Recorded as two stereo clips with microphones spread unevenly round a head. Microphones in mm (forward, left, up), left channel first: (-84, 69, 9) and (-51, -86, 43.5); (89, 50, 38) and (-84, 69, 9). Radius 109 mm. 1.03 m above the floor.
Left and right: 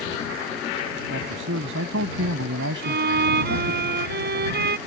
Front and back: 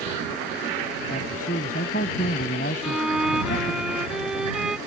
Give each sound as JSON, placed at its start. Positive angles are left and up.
{"t": 1.1, "sound": "a man speaking", "azimuth_deg": -65}
{"t": 2.8, "sound": "a violin", "azimuth_deg": -100}